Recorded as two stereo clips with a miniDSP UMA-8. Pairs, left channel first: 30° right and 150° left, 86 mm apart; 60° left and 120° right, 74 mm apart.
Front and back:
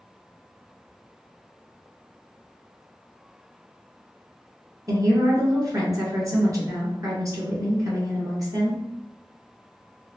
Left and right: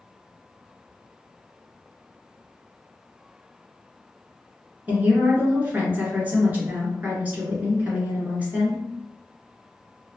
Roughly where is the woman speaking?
Behind.